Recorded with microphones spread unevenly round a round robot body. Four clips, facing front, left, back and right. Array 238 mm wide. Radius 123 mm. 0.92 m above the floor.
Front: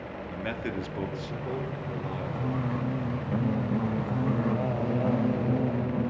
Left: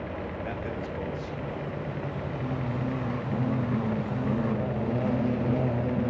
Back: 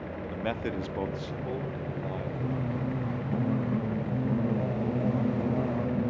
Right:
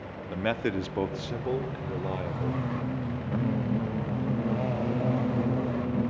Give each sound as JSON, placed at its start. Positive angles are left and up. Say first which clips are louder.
{"t": 0.3, "sound": "a man speaking", "louder": "right 5 dB, back 1 dB", "azimuth_deg": -95, "distance_m": 1.4}